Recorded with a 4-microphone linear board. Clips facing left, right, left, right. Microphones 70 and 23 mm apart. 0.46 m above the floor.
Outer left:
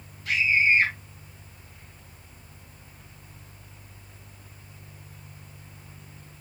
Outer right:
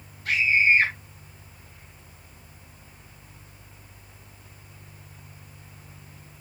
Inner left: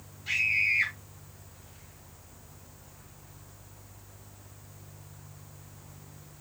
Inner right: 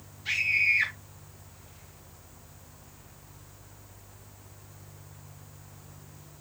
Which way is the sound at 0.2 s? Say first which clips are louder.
Outer right 1 dB, inner right 1 dB; 65° right (ahead or behind).